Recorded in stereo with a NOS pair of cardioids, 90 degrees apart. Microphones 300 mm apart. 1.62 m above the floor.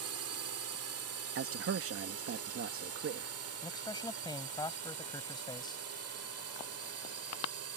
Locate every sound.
0.0 s a drone: 60° right; by 7.8 s 55° right
1.4 s a man speaking: 50° right
3.6 s a man speaking: 15° left